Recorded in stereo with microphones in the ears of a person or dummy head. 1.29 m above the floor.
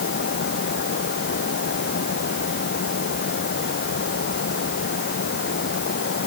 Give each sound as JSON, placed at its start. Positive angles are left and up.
{"t": 0.0, "sound": "a fan", "side_deg": 60}